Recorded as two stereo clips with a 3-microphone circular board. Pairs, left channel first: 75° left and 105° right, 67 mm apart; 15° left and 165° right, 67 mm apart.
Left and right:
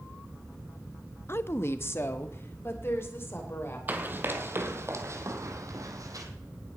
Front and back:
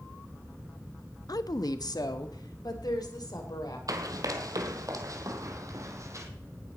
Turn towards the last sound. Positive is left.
turn(degrees=-130)